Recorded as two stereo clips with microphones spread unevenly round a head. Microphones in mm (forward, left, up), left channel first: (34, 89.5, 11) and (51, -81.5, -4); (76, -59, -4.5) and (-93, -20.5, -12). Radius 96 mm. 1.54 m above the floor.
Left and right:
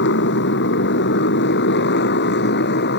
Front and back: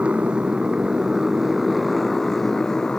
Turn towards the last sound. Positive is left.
turn(degrees=75)